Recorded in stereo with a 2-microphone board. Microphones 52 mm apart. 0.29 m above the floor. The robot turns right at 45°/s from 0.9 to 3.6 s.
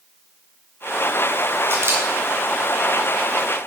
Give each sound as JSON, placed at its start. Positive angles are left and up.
{"t": 1.7, "sound": "a camera shutter", "side_deg": -65, "distance_m": 3.5}